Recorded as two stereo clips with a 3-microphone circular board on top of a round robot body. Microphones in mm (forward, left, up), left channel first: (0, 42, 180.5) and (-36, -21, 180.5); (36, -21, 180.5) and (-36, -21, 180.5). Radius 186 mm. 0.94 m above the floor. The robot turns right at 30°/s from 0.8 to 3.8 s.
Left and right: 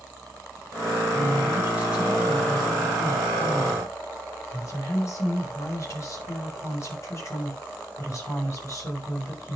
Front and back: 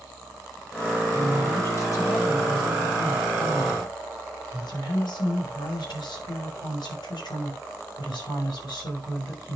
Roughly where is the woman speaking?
Right.